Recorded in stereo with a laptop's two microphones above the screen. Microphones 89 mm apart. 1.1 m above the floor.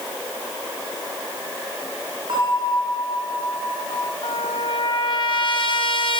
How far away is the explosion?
I don't hear an explosion.